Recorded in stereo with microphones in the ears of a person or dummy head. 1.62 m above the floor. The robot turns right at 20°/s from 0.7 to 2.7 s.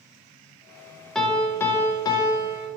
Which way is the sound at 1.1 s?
10° left.